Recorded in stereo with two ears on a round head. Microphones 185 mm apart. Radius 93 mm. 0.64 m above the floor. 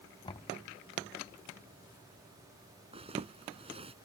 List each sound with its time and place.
0.2 s knocking: 25° left (ahead or behind)
2.9 s a zipper: 30° right (ahead or behind)